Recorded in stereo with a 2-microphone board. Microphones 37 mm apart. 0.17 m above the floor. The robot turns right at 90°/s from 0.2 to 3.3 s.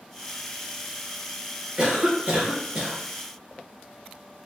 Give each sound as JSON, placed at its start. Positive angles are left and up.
{"t": 1.8, "sound": "a cough", "azimuth_deg": -125, "distance_m": 1.6}